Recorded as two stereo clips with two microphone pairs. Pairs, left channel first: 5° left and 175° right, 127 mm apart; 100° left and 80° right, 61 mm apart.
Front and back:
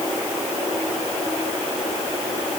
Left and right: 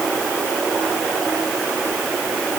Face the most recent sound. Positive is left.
No sound to turn to.